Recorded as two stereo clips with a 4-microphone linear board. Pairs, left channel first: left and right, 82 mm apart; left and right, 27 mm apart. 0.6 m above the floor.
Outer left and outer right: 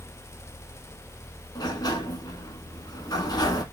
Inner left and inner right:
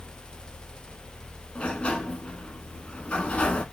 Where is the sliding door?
55° left (ahead or behind), 1.0 m.